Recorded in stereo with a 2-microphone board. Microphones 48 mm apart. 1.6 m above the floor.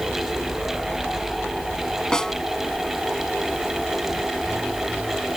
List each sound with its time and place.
2.1 s a snare drum: 15° left (ahead or behind)